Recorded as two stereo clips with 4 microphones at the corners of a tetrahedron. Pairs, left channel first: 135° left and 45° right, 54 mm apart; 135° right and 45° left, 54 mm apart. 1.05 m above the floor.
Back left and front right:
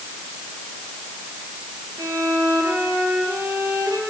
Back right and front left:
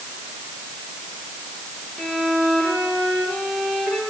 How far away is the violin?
About 10 m.